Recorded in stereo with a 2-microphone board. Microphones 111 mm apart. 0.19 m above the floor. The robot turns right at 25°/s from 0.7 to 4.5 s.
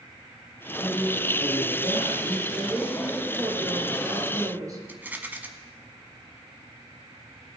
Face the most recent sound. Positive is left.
turn(degrees=-15)  # may be behind; listen again after turning